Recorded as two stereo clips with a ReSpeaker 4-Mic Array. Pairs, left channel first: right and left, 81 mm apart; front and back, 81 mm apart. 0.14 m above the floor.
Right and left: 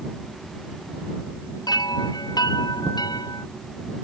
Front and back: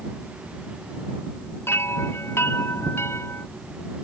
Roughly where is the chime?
Ahead right.